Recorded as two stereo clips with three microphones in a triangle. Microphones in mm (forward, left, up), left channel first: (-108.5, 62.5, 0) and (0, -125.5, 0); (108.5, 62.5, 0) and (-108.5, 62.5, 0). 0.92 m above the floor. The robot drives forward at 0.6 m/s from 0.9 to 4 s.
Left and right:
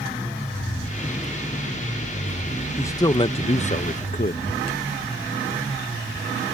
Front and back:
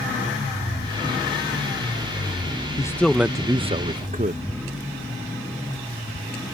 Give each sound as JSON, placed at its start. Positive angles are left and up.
{"t": 2.8, "sound": "a man speaking", "azimuth_deg": 55}